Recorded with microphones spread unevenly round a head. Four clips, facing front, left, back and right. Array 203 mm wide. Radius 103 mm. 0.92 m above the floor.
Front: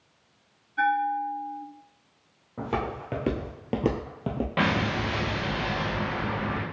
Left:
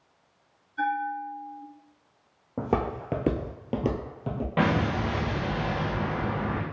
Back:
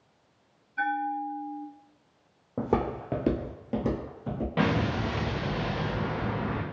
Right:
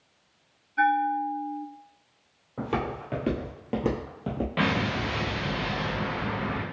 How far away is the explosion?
About 0.7 m.